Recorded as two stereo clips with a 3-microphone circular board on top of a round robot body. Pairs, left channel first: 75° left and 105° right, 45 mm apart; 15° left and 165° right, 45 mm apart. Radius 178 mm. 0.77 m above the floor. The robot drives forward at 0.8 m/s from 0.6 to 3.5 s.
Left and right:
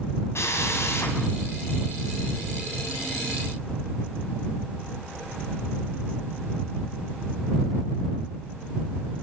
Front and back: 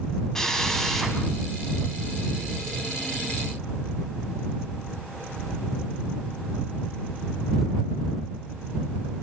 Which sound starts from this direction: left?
A drill, at 0.3 s.